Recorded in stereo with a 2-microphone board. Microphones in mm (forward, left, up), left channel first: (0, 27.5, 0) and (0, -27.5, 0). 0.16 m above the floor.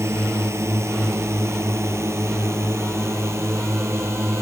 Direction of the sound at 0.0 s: 60° right (ahead or behind).